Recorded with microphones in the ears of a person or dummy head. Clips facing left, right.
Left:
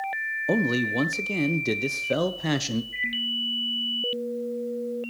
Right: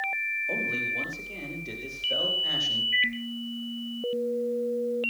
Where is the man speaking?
75° left (ahead or behind), 1.2 m.